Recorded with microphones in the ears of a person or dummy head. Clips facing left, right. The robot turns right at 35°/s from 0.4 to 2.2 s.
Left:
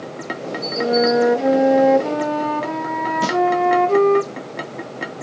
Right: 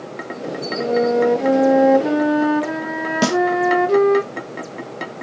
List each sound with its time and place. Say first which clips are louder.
0.8 s a flute: left 1 dB; 10° left (ahead or behind), 0.5 m; by 4.2 s 10° right (ahead or behind), 0.5 m
3.2 s a snare drum: right 4 dB; 70° right (ahead or behind), 1.3 m